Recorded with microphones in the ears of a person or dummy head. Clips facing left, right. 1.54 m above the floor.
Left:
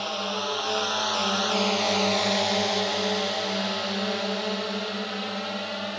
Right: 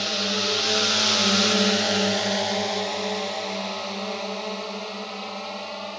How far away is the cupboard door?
I don't hear a cupboard door.